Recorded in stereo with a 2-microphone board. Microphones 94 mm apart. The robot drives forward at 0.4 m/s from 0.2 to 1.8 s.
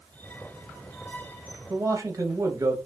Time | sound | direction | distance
1.7 | a man speaking | 35° right (ahead or behind) | 0.7 m